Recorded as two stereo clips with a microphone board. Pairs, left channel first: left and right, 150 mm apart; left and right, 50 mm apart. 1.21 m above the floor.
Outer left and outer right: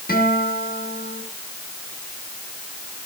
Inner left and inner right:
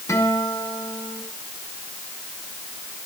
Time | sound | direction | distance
0.1 | a guitar | 85° left | 6.5 m